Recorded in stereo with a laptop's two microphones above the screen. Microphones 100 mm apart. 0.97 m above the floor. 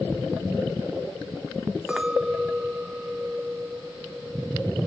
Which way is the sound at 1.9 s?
10° right (ahead or behind).